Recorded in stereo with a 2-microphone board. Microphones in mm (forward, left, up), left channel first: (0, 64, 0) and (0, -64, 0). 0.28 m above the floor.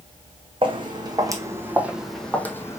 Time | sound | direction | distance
0.6 | footsteps | 40° right (ahead or behind) | 1.1 m